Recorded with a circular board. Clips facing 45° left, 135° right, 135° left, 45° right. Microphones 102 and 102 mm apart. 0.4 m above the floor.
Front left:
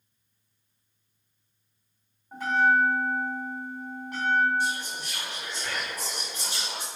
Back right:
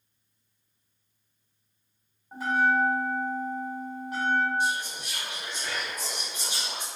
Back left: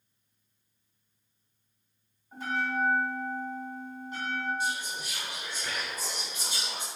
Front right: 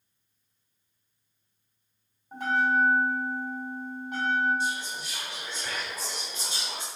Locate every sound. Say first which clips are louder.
2.3 s a bell: front left 2 dB, front right 6 dB; 55° right, 1.9 m
4.6 s whispering: back right 1 dB, front right 2 dB; 75° right, 1.7 m